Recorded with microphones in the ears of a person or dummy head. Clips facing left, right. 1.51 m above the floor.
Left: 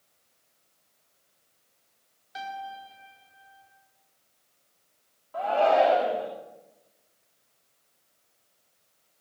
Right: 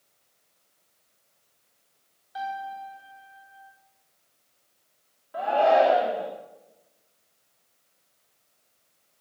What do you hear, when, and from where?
2.4 s a piano: 35° left (ahead or behind), 5 m
5.3 s a shout: 20° right (ahead or behind), 3 m